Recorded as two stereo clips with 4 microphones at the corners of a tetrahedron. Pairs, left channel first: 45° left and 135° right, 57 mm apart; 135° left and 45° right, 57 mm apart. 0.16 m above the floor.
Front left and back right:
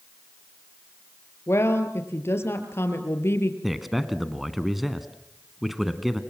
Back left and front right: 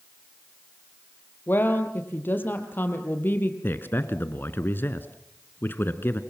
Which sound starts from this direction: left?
A woman speaking, at 1.5 s.